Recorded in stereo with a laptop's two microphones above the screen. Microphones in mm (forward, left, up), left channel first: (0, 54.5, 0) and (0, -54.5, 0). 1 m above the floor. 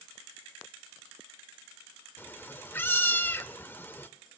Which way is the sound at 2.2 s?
20° left (ahead or behind).